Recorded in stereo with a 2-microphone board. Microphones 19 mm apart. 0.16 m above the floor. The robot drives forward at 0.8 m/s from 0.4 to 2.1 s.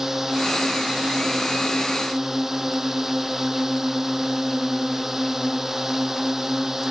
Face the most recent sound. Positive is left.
turn(degrees=-25)  # may be behind; listen again after turning